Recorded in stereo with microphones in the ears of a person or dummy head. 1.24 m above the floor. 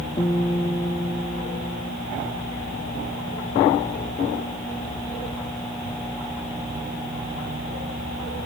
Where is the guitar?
20° left (ahead or behind), 1.1 m.